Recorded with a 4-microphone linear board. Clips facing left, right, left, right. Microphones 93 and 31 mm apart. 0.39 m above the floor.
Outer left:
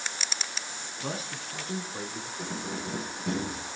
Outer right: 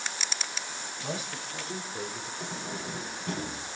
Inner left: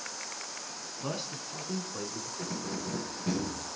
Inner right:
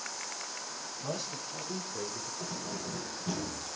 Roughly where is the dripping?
I don't hear dripping.